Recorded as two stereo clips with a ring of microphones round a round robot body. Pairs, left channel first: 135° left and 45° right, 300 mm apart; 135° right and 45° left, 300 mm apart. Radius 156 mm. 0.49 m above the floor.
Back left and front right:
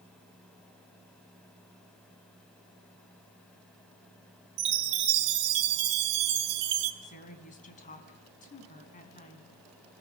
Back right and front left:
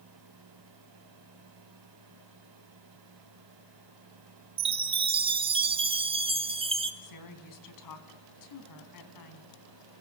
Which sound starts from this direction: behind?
A woman speaking, at 7.0 s.